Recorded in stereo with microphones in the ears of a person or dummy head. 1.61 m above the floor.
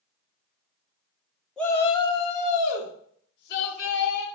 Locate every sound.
1.6 s a shout: 5° left (ahead or behind), 0.6 m; by 4.3 s 60° left (ahead or behind), 1.7 m